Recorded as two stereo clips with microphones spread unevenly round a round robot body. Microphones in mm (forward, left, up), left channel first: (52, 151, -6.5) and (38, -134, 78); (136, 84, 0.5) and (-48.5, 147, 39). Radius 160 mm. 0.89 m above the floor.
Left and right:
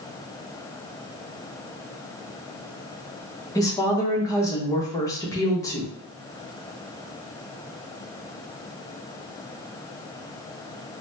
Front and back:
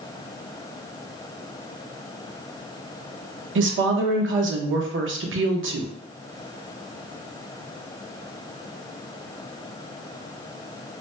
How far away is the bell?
No bell in this recording.